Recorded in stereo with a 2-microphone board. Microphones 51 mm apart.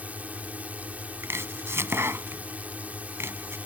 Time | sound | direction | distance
0.0 | a drone | 30° right (ahead or behind) | ?
1.2 | chopping | 55° right (ahead or behind) | ?